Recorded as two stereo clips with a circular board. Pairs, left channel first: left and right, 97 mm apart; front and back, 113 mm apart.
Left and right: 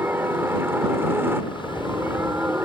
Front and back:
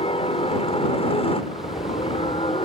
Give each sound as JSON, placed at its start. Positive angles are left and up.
{"t": 0.0, "sound": "a helicopter", "azimuth_deg": -25}